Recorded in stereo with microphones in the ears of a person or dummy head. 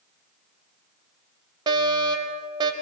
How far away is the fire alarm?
About 2.5 m.